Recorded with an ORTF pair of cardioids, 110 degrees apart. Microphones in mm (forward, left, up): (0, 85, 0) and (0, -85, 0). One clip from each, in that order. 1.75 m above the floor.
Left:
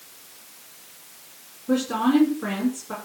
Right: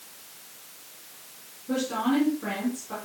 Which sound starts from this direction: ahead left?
A woman speaking, at 1.7 s.